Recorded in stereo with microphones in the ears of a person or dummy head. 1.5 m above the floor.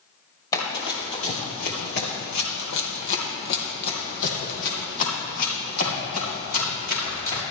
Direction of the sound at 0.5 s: 20° left (ahead or behind).